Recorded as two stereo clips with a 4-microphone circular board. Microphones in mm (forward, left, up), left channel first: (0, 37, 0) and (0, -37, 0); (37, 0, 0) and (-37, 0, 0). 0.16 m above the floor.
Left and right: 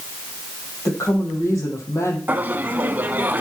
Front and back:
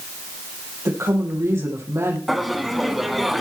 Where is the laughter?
90° right, 1.1 m.